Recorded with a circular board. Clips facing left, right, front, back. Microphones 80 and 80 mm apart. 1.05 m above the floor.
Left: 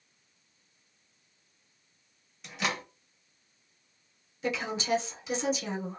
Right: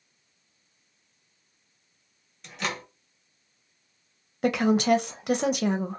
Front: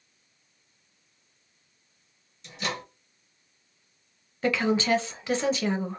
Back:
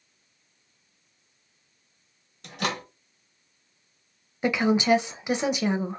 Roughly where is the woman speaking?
Right.